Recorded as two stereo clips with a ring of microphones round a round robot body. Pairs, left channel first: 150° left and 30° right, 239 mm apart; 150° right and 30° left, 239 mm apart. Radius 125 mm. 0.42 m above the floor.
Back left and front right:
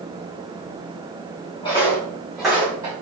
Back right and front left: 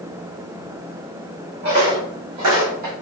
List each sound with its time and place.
1.6 s footsteps: 80° left, 1.8 m; by 2.9 s 40° left, 1.3 m